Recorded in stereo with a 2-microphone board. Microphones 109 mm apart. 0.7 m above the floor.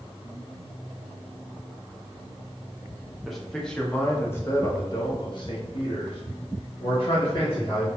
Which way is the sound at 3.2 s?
Centre (ahead or behind).